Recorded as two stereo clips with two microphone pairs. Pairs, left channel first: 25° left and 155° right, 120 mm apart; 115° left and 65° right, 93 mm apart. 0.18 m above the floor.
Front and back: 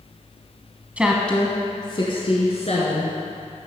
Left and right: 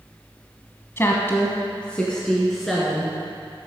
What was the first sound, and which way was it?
A woman speaking, 140° left.